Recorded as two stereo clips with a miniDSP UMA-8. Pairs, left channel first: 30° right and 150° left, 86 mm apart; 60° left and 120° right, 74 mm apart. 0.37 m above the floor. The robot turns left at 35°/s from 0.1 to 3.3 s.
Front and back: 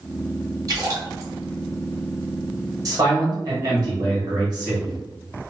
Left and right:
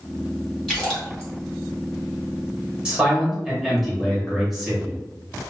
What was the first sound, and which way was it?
A splash, 150° left.